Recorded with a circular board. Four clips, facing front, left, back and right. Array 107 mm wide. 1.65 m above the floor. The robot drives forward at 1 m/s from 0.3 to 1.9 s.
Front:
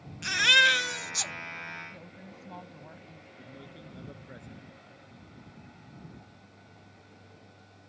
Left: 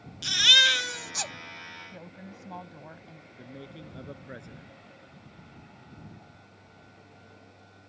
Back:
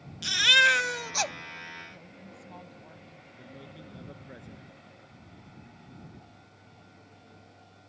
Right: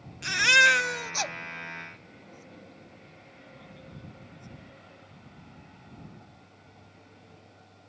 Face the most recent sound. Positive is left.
turn(degrees=95)